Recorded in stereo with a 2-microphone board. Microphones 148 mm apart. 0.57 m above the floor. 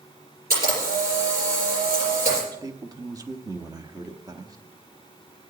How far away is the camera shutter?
About 7 m.